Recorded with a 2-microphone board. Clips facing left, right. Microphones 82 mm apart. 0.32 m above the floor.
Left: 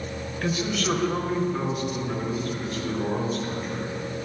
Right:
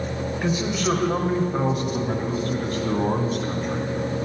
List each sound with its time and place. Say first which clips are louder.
0.4 s a man speaking: right 2 dB; 15° right (ahead or behind), 1.6 m; by 3.9 s 65° right (ahead or behind), 4 m